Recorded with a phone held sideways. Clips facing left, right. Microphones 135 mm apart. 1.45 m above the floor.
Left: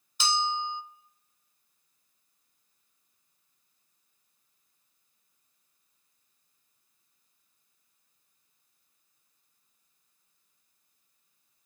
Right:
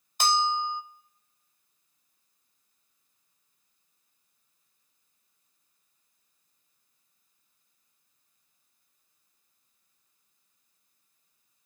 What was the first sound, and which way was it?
A bell, 55° right (ahead or behind).